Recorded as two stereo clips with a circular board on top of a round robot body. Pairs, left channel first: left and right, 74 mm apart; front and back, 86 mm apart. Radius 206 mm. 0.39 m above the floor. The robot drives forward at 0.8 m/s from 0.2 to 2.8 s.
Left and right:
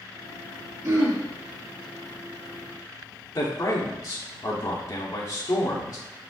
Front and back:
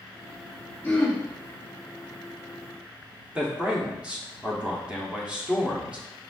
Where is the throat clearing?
55° right, 2 m; by 1.2 s 65° right, 1.9 m.